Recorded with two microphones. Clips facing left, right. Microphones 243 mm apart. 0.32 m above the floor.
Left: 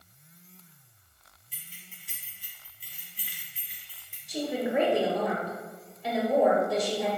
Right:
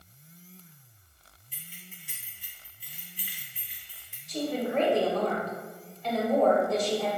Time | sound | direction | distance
1.5 | keys jangling | 45° right (ahead or behind) | 1.4 m
4.3 | a woman speaking | 10° left (ahead or behind) | 1.0 m